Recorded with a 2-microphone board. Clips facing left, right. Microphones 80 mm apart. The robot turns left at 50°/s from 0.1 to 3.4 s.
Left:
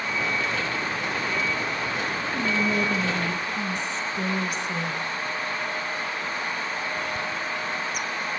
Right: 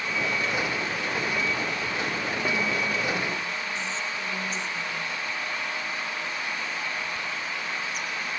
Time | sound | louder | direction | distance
2.3 | whispering | left 4 dB | 25° left (ahead or behind) | 2.5 m